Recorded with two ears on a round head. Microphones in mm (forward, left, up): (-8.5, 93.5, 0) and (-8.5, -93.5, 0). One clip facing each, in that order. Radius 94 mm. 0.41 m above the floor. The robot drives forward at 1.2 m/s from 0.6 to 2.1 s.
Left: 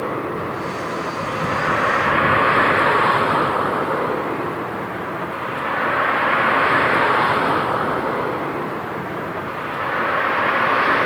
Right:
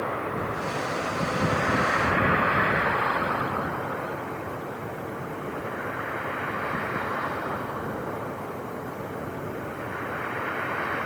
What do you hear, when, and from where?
0.0 s a vehicle: 55° left (ahead or behind); by 11.1 s 80° left